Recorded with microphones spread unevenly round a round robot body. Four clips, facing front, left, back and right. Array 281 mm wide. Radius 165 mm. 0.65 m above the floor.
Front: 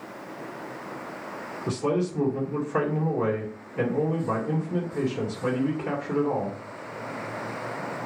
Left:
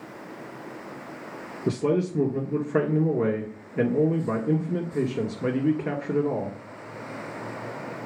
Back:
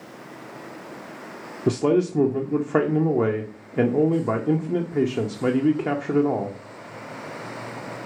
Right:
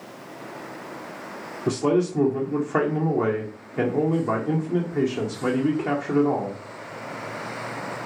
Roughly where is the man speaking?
Behind.